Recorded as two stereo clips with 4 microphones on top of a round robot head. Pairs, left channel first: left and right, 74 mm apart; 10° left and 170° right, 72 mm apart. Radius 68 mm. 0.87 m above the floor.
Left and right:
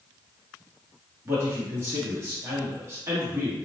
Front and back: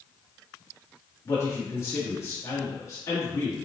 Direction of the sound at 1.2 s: 40° right.